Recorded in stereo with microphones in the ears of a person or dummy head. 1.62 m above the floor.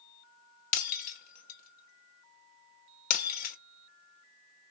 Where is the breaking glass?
50° left (ahead or behind), 1.4 m.